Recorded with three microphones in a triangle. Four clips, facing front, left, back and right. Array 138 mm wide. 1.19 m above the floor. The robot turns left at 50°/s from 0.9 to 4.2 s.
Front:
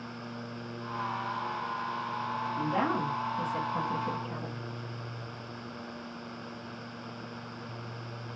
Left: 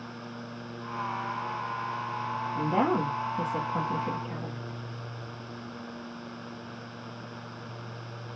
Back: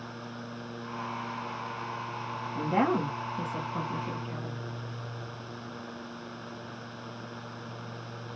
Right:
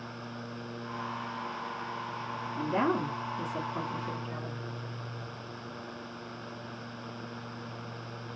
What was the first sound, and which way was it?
A woman speaking, 155° left.